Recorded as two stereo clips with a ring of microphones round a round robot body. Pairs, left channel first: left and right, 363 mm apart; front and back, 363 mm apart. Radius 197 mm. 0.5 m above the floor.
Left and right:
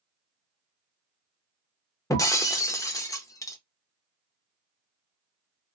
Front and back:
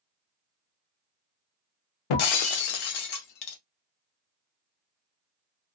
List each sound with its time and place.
2.1 s breaking glass: 10° left, 0.6 m